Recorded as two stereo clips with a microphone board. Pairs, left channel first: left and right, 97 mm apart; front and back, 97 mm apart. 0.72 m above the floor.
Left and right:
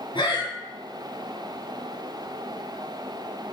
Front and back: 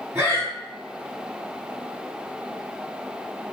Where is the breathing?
120° left, 1.1 m.